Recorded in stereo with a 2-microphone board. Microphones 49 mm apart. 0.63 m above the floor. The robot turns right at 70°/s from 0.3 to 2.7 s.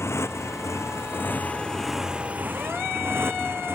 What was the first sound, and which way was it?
A motorcycle, 70° left.